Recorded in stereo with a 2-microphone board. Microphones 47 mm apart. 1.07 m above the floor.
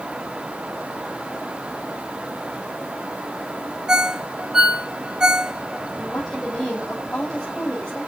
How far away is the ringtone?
About 2.5 m.